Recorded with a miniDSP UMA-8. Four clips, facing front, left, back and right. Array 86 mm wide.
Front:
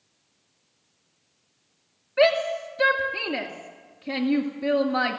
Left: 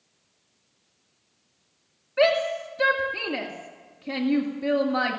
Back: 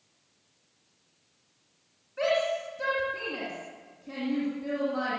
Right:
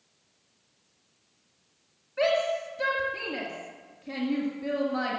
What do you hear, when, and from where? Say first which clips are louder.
2.2 s a shout: left 4 dB, front 6 dB; 35° left, 1.8 m